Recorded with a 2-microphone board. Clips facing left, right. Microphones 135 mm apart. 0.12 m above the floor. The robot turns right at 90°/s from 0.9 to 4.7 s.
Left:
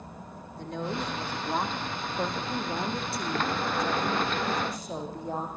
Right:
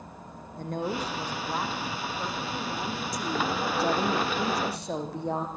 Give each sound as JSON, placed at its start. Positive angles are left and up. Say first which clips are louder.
{"t": 0.5, "sound": "a woman speaking", "louder": "right 2 dB", "azimuth_deg": -50, "distance_m": 5.0}